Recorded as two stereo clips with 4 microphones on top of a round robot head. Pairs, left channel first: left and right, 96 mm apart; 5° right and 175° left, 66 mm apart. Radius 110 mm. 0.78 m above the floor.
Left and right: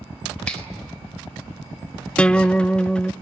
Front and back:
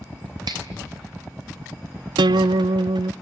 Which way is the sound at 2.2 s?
170° left.